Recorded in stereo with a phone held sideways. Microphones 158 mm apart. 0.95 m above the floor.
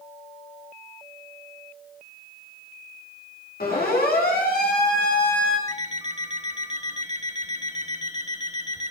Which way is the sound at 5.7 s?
50° right (ahead or behind).